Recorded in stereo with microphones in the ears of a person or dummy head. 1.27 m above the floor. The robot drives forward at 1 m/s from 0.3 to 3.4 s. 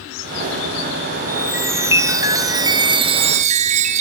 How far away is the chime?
About 3 m.